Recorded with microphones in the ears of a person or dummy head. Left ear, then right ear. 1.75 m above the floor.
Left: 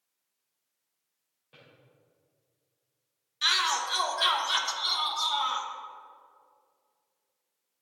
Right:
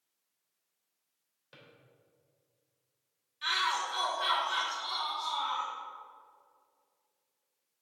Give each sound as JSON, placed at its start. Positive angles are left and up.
{"t": 1.5, "sound": "a drawer", "side_deg": -60, "distance_m": 3.5}
{"t": 3.4, "sound": "a shout", "side_deg": 45, "distance_m": 1.4}